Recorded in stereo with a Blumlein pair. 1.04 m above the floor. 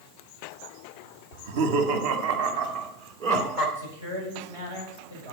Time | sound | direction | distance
1.3 | laughter | 55° right | 1.1 m
3.8 | a man speaking | 70° right | 5.5 m